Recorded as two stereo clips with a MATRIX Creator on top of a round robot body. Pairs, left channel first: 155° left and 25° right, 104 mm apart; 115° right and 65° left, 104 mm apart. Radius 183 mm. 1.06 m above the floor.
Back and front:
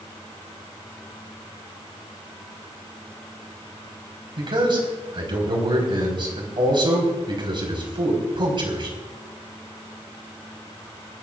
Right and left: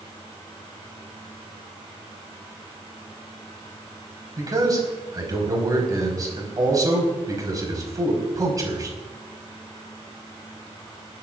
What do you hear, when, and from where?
4.4 s a man speaking: 15° left, 4.5 m